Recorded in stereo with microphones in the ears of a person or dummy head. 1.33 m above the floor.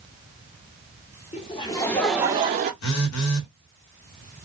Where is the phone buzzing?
85° left, 1.3 m.